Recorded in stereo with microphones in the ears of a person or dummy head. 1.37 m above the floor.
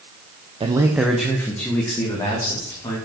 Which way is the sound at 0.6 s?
25° right (ahead or behind).